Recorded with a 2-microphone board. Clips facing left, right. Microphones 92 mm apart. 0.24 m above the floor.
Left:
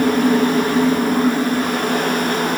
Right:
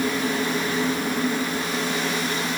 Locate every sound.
Only background noise.